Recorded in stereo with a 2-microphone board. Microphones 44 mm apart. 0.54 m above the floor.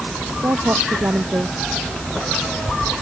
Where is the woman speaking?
85° right.